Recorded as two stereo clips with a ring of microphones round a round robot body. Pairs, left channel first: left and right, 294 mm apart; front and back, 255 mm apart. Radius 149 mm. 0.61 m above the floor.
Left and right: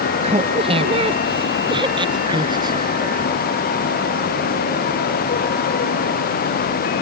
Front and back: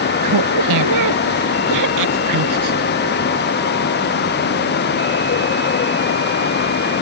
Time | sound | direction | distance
0.2 | laughter | 160° right | ?